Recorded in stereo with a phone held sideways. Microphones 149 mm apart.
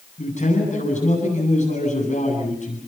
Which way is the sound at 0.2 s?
55° left (ahead or behind).